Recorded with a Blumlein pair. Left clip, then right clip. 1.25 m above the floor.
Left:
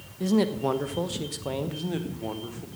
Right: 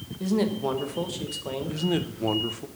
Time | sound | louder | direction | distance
0.2 | a man speaking | left 1 dB | 10° left | 1.1 m
1.7 | a man speaking | right 5 dB | 15° right | 1.0 m